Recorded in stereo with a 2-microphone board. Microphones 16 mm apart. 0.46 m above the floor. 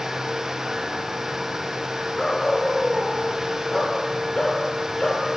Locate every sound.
2.2 s a dog barking: 45° left (ahead or behind), 8.5 m; by 5.3 s 35° left (ahead or behind), 4.5 m